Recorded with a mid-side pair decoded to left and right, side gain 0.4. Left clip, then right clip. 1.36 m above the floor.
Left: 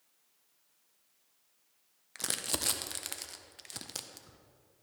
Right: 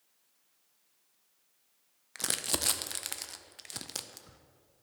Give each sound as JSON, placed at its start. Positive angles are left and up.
{"t": 2.1, "sound": "crumpling", "azimuth_deg": -20, "distance_m": 0.5}